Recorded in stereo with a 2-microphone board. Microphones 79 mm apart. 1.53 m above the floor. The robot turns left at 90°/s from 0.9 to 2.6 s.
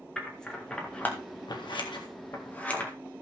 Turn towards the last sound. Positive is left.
turn(degrees=15)  # may be behind; listen again after turning